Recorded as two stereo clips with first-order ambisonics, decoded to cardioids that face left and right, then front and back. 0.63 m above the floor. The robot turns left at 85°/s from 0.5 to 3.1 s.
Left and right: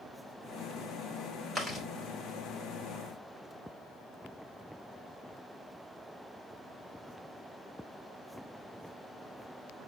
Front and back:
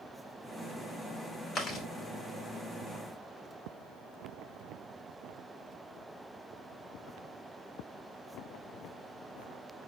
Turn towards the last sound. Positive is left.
turn(degrees=-145)